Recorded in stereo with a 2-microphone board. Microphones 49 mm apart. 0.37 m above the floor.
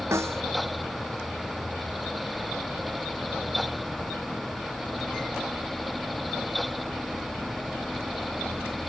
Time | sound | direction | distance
0.1 | a snare drum | 70° right (ahead or behind) | ?